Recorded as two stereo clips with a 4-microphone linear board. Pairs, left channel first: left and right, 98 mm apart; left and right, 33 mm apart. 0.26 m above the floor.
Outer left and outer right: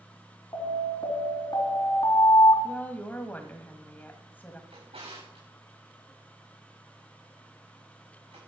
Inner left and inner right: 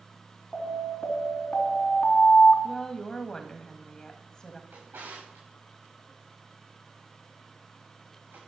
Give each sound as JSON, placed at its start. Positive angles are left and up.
{"t": 0.5, "sound": "an alarm", "side_deg": 45, "distance_m": 3.0}
{"t": 2.6, "sound": "a woman speaking", "side_deg": 20, "distance_m": 1.6}
{"t": 4.7, "sound": "a drawer", "side_deg": -90, "distance_m": 6.5}